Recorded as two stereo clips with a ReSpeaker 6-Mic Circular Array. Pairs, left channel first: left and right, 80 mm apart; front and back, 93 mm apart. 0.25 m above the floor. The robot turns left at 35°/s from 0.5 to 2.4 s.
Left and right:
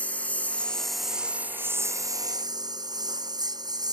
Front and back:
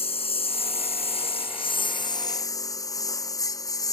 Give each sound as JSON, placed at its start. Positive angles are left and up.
{"t": 0.0, "sound": "a lawn mower", "azimuth_deg": 15}